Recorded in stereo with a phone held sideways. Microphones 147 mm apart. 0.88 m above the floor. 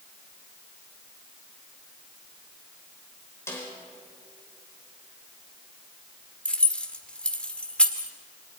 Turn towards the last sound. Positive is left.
turn(degrees=10)  # may be behind; listen again after turning